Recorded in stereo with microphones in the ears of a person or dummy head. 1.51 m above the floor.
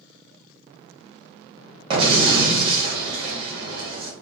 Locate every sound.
1.9 s an explosion: 30° right (ahead or behind), 1.5 m